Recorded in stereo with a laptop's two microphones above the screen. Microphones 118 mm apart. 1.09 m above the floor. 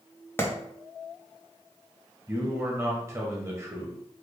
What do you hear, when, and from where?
0.4 s a clap: 20° left (ahead or behind), 0.9 m
2.3 s a man speaking: 25° right (ahead or behind), 0.8 m